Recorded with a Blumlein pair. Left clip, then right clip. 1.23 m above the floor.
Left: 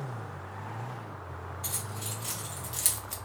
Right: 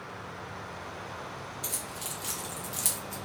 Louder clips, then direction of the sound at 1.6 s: Even; 25° right.